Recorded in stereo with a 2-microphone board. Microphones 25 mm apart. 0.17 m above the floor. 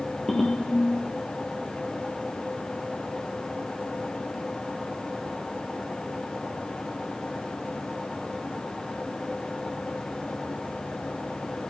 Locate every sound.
0.3 s a ringtone: 30° left (ahead or behind), 1.2 m